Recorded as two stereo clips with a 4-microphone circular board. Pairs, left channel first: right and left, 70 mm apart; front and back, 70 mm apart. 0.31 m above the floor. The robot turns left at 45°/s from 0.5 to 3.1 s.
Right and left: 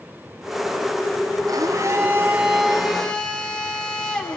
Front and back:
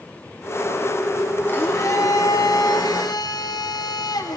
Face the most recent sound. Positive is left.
turn(degrees=-10)